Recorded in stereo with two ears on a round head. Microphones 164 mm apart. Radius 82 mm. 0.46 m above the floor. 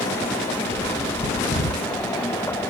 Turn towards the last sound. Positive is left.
turn(degrees=25)  # may be behind; listen again after turning